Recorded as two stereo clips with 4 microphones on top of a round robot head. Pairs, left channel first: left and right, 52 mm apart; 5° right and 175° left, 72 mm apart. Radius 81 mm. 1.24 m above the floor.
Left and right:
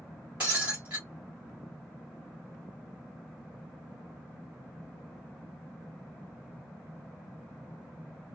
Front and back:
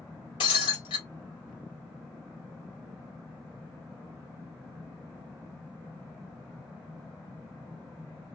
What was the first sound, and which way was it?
Breaking glass, 15° right.